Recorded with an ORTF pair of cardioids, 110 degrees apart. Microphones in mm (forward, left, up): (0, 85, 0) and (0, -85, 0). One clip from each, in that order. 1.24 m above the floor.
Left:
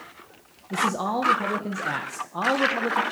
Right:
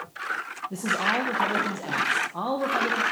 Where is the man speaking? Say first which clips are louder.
Left 1 dB; 10° left, 0.9 m.